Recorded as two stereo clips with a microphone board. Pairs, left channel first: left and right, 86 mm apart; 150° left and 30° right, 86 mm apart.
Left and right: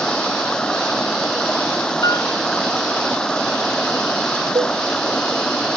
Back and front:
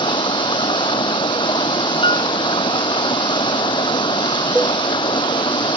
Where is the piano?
140° left.